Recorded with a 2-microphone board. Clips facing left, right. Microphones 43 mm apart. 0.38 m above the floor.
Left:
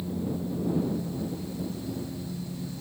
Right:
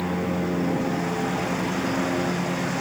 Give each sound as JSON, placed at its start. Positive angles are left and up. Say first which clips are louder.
{"t": 0.0, "sound": "a lawn mower", "louder": "right 7 dB", "side_deg": -75}